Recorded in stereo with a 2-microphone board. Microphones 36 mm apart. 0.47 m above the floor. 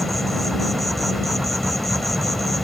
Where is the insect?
5° left (ahead or behind).